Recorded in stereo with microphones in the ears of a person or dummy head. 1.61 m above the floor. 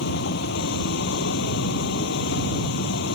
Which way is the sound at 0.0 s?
70° left (ahead or behind).